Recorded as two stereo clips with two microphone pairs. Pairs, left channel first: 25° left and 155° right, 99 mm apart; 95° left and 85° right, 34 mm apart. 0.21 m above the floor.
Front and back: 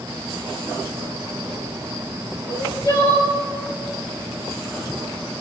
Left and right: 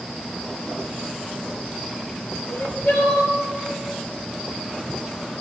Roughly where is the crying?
Left.